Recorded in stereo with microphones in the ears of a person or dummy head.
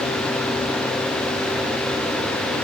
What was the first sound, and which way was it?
Only background noise.